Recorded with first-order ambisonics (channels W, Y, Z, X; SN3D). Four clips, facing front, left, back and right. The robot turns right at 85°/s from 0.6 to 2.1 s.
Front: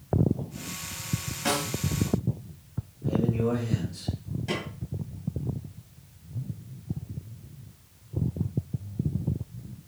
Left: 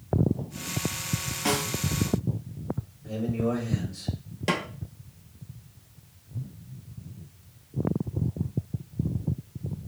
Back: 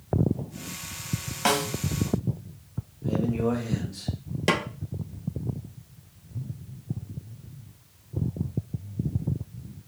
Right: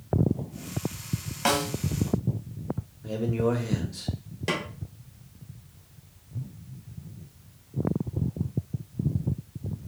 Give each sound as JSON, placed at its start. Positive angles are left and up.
{"t": 1.4, "sound": "a snare drum", "azimuth_deg": -140, "distance_m": 1.2}
{"t": 3.0, "sound": "a man speaking", "azimuth_deg": -105, "distance_m": 1.2}
{"t": 4.5, "sound": "a snare drum", "azimuth_deg": 175, "distance_m": 0.6}